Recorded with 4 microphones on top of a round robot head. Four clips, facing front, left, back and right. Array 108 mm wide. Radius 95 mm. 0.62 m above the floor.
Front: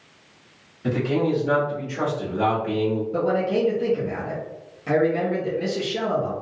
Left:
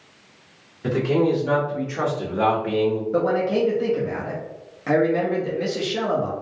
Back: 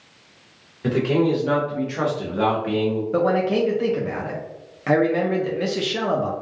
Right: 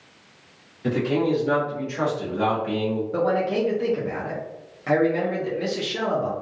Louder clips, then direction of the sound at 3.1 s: Even, back 4 dB; 170° left.